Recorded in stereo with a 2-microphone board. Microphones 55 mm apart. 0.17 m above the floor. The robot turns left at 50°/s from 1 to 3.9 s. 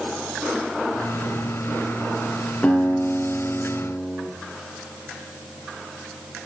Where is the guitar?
140° left, 1.9 m; by 4.2 s 80° left, 1.9 m.